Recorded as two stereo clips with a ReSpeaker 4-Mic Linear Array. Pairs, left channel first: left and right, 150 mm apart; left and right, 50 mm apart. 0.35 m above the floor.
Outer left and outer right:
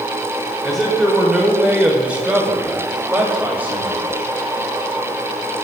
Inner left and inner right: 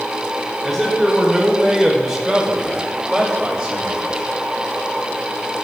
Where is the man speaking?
Centre (ahead or behind), 1.3 m; by 4.3 s 10° right (ahead or behind), 2.5 m.